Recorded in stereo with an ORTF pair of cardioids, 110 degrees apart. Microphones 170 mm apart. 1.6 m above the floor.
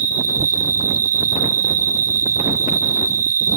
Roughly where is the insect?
Ahead right.